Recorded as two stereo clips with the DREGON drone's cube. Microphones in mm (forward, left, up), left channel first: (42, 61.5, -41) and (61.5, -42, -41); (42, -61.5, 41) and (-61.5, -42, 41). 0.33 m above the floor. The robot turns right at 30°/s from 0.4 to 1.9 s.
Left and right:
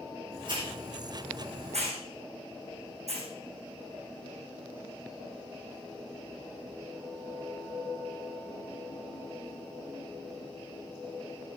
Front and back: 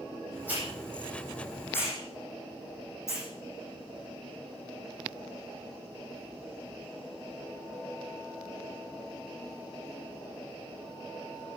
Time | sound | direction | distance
0.5 | a hiss | 120° right | 9.5 m